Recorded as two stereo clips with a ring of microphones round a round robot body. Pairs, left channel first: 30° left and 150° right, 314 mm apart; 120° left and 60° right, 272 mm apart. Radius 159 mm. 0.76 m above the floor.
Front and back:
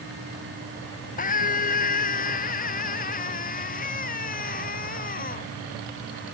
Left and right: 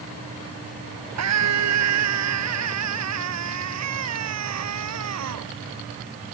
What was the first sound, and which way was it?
A scream, 35° right.